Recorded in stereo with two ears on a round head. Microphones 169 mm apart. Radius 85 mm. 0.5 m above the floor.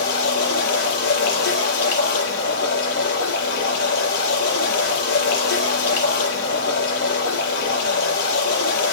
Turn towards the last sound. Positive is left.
turn(degrees=60)  # may be behind; listen again after turning